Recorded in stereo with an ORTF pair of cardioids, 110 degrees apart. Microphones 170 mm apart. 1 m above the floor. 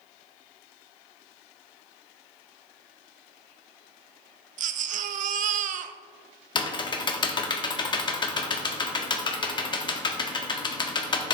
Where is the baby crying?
55° right, 0.5 m.